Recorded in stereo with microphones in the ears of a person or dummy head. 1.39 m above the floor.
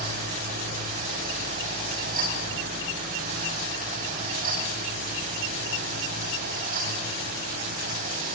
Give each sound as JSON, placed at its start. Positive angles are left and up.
{"t": 0.0, "sound": "a fan", "side_deg": -45, "distance_m": 4.5}